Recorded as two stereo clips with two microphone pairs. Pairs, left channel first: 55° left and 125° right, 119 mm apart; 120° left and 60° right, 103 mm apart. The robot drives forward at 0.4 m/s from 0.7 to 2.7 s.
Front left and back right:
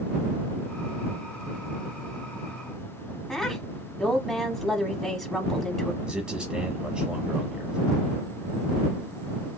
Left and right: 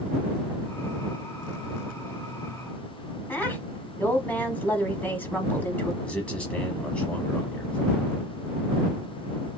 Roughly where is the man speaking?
Behind.